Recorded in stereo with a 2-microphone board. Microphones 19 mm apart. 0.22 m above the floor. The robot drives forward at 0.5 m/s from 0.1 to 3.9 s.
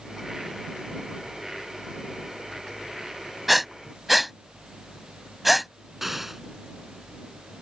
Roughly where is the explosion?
Centre.